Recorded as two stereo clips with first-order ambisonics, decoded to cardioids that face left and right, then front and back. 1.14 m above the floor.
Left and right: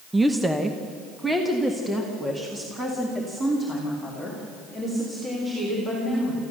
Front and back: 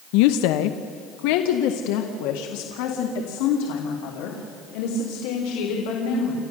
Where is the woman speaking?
5° right, 0.6 m; by 6.4 s 10° right, 4 m.